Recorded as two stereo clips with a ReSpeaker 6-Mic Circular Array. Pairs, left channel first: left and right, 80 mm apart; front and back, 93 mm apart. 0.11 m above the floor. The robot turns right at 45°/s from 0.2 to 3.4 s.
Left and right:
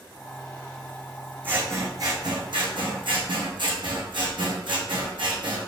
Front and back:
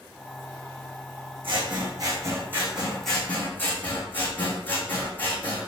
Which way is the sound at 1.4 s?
160° right.